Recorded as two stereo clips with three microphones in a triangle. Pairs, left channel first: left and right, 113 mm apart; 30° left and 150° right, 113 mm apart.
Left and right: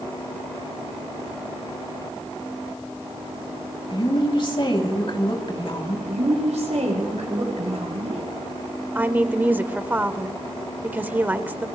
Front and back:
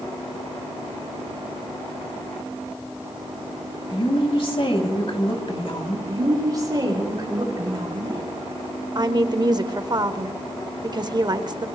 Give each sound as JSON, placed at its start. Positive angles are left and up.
{"t": 3.9, "sound": "a woman speaking", "azimuth_deg": 55, "distance_m": 2.5}
{"t": 6.1, "sound": "a woman speaking", "azimuth_deg": -95, "distance_m": 6.5}
{"t": 8.9, "sound": "a woman speaking", "azimuth_deg": -155, "distance_m": 1.1}